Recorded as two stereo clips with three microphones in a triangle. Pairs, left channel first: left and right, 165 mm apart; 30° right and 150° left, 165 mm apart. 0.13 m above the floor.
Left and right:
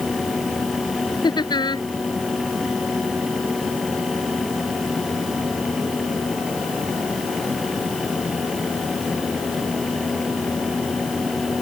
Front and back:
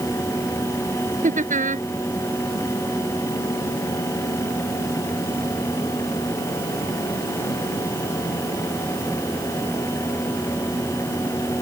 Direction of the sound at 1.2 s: 145° left.